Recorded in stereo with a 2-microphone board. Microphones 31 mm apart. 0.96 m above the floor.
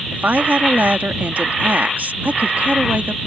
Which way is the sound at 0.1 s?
70° right (ahead or behind).